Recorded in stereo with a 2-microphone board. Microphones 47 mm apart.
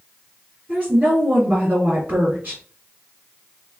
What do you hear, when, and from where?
0.7 s a woman speaking: 35° right (ahead or behind), 2.5 m